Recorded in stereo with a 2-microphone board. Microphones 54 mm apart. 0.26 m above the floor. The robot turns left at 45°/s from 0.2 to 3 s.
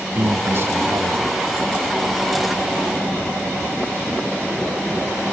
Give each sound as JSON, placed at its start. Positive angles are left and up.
{"t": 0.1, "sound": "a man speaking", "azimuth_deg": -45, "distance_m": 2.0}